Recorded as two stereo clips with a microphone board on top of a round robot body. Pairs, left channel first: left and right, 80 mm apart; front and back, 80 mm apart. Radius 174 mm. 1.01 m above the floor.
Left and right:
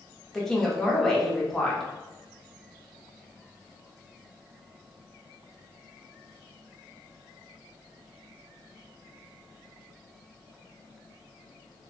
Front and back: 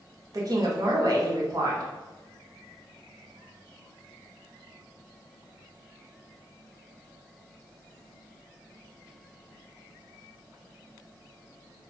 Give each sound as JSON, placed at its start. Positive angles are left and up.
{"t": 0.3, "sound": "a woman speaking", "azimuth_deg": 175, "distance_m": 1.0}